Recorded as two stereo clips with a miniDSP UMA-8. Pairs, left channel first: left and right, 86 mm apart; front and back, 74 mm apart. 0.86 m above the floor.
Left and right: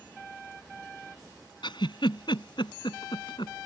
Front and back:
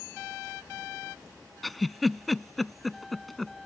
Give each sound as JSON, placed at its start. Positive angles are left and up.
{"t": 1.6, "sound": "a giggle", "azimuth_deg": 90}